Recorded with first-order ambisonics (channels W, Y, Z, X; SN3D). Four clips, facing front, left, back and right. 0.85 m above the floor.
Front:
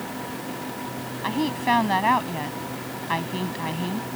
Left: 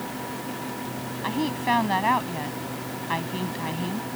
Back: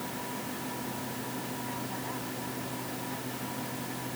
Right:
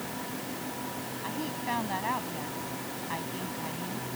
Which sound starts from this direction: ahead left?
A woman speaking, at 1.2 s.